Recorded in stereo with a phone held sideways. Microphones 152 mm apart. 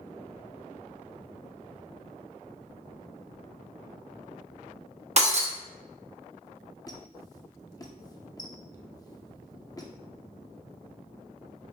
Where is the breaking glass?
45° right (ahead or behind), 0.8 m.